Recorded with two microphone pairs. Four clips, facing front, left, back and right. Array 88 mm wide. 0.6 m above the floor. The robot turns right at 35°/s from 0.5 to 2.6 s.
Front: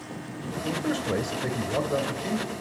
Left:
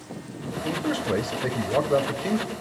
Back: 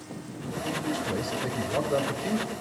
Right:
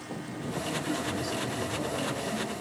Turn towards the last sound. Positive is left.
turn(degrees=115)